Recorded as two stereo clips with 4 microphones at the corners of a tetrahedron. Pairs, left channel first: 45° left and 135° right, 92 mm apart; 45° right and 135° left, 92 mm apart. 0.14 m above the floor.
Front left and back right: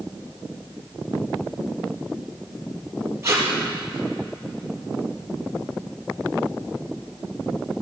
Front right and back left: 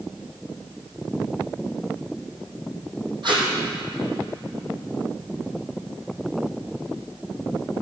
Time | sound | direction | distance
3.2 | tape being pulled | 165° left | 4.5 m